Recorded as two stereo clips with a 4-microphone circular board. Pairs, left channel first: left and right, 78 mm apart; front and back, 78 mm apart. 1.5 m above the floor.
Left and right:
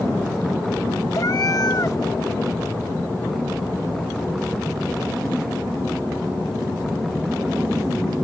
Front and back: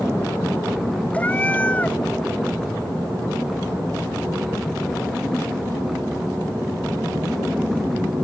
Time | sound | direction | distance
1.1 | a cat meowing | 65° left | ?